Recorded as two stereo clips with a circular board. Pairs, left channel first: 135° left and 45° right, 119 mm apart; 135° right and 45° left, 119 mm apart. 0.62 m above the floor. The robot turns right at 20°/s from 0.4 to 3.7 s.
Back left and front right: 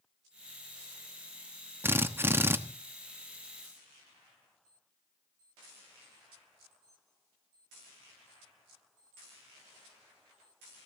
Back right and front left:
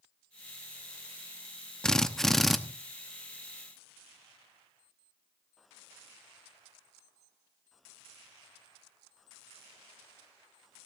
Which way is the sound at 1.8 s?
65° right.